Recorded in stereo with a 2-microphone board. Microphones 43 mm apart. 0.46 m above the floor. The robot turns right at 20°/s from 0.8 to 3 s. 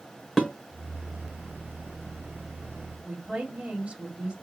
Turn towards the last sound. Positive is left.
turn(degrees=-25)  # may be behind; listen again after turning